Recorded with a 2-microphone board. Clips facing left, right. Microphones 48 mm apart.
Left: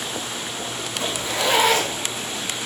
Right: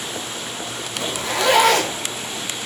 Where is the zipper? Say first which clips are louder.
Right 3 dB; 60° right (ahead or behind), 6 m.